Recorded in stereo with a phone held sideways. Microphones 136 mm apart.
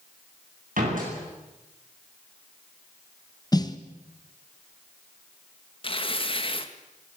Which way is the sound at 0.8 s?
80° right.